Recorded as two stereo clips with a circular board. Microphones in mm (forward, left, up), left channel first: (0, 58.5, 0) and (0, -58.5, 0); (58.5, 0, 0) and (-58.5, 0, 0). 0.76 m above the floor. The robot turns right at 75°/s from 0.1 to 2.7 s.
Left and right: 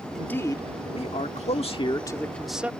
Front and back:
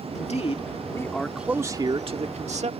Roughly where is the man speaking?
Ahead.